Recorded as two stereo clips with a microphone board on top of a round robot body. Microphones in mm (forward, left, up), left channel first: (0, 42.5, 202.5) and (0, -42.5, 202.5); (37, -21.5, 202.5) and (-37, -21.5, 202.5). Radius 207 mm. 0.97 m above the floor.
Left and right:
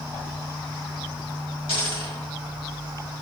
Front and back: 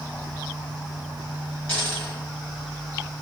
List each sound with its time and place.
1.7 s a dropped coin: 75° left, 1.8 m